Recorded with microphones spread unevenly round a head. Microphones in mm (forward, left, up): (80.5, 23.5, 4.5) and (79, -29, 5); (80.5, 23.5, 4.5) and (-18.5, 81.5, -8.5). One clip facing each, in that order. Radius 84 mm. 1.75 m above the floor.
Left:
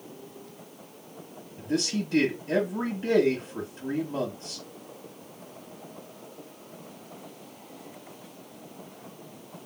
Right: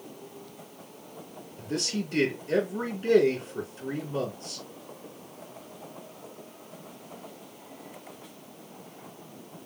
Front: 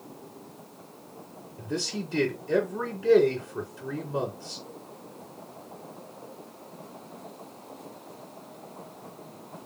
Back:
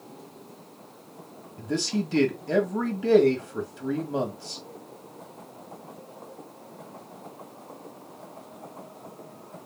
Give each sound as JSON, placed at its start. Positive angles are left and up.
{"t": 1.6, "sound": "a man speaking", "azimuth_deg": 140, "distance_m": 1.5}